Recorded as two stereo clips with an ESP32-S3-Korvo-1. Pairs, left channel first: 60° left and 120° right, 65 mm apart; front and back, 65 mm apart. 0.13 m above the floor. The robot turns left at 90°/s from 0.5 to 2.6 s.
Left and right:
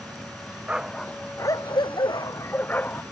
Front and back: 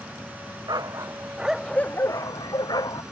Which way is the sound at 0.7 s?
170° left.